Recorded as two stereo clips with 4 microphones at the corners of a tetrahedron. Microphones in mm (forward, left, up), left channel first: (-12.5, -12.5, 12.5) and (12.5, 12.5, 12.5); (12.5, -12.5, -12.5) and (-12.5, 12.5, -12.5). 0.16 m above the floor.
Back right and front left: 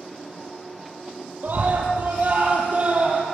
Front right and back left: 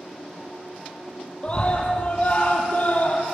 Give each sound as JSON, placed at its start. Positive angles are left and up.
{"t": 1.4, "sound": "a scream", "azimuth_deg": 10, "distance_m": 5.5}